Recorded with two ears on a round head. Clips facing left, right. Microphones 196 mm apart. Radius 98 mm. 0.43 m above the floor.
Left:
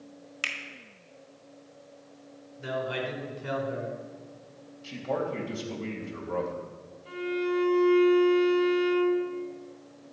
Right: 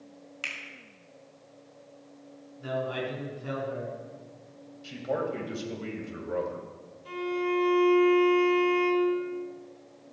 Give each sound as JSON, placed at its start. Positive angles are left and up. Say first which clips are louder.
{"t": 0.4, "sound": "a finger snap", "louder": "left 4 dB", "side_deg": 20, "distance_m": 1.8}
{"t": 2.6, "sound": "a man speaking", "louder": "even", "side_deg": 30, "distance_m": 4.5}
{"t": 4.8, "sound": "a man speaking", "louder": "even", "side_deg": -15, "distance_m": 2.5}
{"t": 7.0, "sound": "a violin", "louder": "even", "side_deg": -50, "distance_m": 2.5}